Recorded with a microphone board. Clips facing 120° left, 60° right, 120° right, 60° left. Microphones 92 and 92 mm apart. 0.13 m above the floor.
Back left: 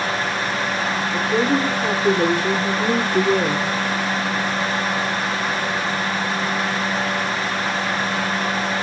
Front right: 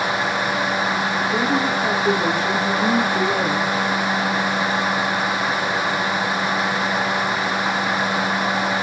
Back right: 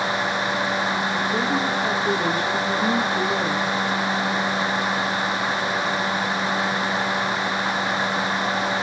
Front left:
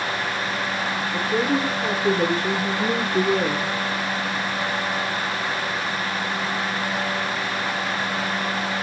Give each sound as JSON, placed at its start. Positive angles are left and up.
{"t": 1.1, "sound": "a woman speaking", "azimuth_deg": 85, "distance_m": 3.0}